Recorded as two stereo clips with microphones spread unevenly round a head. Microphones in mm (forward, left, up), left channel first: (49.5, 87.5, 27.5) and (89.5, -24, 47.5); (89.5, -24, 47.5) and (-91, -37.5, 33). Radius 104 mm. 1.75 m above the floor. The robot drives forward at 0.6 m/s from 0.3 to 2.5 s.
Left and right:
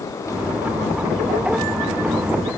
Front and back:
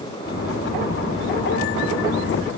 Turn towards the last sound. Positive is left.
No sound to turn to.